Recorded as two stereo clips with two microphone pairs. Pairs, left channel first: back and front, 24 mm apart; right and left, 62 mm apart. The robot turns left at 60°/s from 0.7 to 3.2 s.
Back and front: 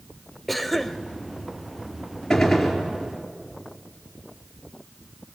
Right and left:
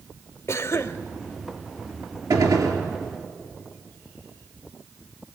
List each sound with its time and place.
0.5 s a cough: 100° right, 1.1 m; by 1.0 s 120° right, 1.1 m
2.3 s a gunshot: 105° left, 4 m; by 2.8 s 70° left, 4 m